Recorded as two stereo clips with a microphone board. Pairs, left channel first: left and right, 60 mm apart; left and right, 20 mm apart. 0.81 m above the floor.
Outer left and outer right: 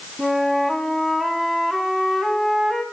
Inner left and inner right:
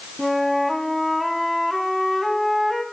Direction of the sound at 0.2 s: Centre (ahead or behind).